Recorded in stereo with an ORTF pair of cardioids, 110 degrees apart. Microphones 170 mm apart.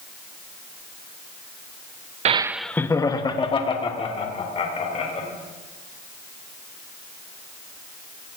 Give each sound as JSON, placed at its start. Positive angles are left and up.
{"t": 2.2, "sound": "laughter", "azimuth_deg": -45, "distance_m": 0.5}